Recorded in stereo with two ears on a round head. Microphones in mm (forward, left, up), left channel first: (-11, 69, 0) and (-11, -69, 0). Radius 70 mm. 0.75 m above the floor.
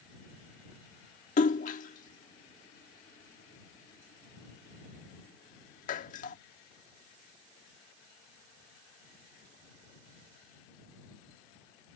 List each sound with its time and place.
1.4 s a splash: 50° left (ahead or behind)